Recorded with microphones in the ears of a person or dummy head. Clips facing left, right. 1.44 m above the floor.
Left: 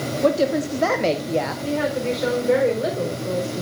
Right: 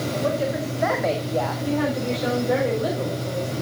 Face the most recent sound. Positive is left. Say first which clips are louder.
# left 1 dB
turn(degrees=40)  # may be behind; listen again after turning